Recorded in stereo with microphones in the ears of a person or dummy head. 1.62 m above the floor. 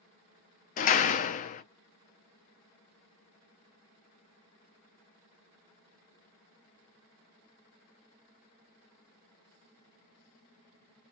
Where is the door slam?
40° left (ahead or behind), 0.7 m.